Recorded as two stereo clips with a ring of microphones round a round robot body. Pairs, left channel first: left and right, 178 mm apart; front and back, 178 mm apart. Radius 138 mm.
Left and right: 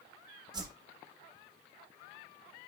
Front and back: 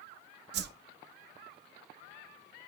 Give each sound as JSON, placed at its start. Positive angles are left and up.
{"t": 0.5, "sound": "a whoosh", "azimuth_deg": -160, "distance_m": 0.6}